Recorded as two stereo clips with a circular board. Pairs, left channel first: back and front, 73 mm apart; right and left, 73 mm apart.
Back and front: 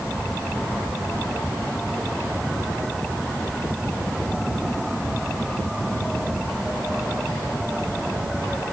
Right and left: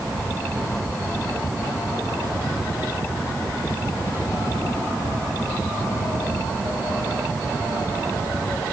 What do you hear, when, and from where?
Only background noise.